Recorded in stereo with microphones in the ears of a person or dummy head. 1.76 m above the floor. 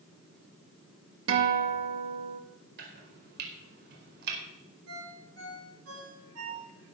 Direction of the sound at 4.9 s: 75° right (ahead or behind).